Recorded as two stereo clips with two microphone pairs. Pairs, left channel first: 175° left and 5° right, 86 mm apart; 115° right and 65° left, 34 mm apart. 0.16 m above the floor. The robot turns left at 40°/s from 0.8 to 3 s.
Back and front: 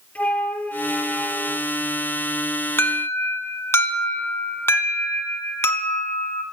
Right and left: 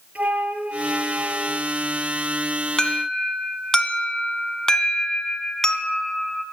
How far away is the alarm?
About 1.1 m.